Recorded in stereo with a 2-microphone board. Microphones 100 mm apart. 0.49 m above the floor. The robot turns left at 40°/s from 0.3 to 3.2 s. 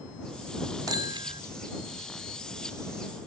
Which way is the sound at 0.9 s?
45° right (ahead or behind).